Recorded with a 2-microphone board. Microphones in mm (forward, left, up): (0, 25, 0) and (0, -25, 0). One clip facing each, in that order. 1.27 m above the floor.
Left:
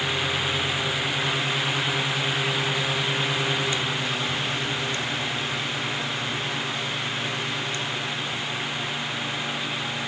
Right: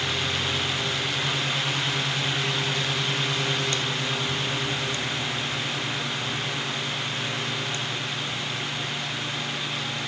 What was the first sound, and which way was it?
Only background noise.